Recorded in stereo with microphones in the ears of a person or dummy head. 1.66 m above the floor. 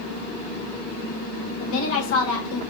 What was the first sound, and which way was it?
A woman speaking, 80° left.